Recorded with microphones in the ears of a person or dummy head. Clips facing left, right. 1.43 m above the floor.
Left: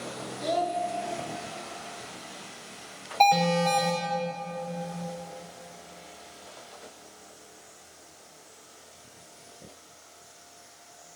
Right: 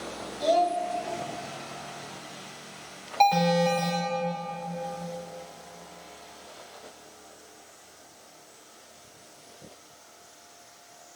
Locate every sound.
0.4 s a child speaking: 80° right, 1.6 m
3.2 s an alarm: 10° left (ahead or behind), 4 m